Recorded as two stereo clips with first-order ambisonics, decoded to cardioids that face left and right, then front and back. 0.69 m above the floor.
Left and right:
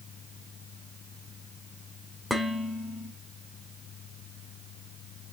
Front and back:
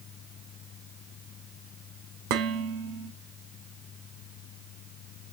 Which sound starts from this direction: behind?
Dishes clattering, at 2.3 s.